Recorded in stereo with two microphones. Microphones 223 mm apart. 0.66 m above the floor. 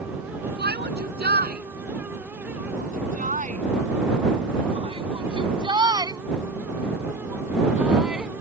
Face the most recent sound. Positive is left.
turn(degrees=0)  # may be behind; listen again after turning